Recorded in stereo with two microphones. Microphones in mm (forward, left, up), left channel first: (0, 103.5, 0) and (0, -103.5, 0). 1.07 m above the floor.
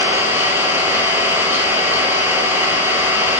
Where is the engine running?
10° right (ahead or behind), 1.8 m.